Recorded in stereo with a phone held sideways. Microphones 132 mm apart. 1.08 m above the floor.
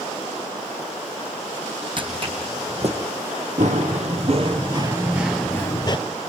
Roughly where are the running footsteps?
Right.